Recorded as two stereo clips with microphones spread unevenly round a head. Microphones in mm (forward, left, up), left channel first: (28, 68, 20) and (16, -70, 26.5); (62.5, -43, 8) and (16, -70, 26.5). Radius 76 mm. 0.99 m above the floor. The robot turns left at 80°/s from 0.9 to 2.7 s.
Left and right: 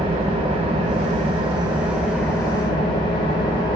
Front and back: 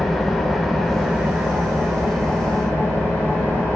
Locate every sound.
0.0 s an engine running: 85° right, 0.8 m; by 3.8 s 130° left, 0.8 m